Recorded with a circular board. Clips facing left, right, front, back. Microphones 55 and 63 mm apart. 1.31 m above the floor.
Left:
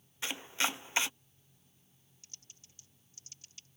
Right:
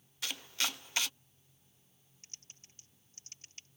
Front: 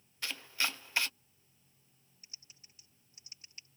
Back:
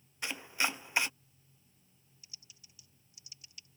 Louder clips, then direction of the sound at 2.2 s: Right 2 dB, even; 45° right.